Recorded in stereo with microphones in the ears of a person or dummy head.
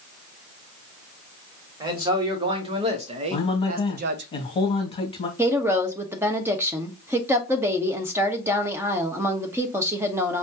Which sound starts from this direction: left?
A man speaking, at 3.3 s.